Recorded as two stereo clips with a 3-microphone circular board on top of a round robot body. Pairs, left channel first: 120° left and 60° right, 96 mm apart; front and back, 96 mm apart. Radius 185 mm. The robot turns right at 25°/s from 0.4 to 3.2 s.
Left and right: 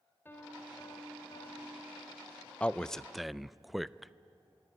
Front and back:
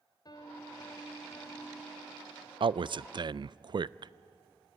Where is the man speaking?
165° right, 0.5 m; by 4.1 s 150° right, 0.5 m.